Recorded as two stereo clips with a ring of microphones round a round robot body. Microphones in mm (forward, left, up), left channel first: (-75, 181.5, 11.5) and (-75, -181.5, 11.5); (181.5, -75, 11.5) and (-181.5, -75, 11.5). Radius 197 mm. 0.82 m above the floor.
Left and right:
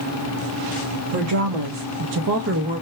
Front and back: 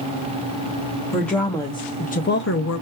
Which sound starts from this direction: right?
A woman speaking, at 1.1 s.